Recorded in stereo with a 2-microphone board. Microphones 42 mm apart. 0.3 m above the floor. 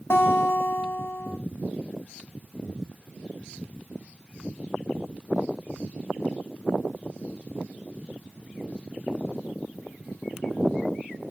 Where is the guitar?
65° left (ahead or behind), 0.6 m.